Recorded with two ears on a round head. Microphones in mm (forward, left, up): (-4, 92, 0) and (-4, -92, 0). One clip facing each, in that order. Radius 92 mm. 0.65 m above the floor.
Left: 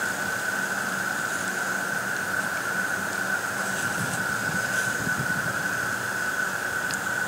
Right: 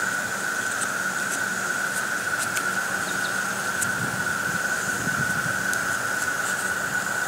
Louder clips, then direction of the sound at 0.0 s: Even; 55° right (ahead or behind).